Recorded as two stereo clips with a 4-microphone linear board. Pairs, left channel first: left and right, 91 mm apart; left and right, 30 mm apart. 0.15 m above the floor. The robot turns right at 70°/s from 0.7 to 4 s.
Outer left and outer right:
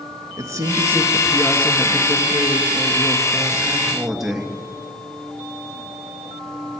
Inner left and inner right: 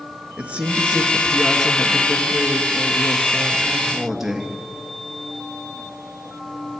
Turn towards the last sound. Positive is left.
turn(degrees=-175)